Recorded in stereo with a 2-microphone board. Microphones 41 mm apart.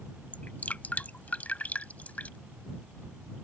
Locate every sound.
0.3 s dripping: 40° left (ahead or behind)